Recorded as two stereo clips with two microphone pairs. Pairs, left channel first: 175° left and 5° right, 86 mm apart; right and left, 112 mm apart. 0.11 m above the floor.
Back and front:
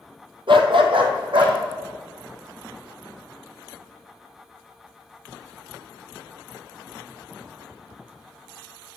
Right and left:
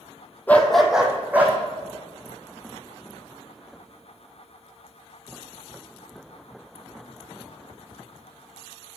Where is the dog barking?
20° right, 0.8 m; by 1.6 s 15° left, 1.6 m.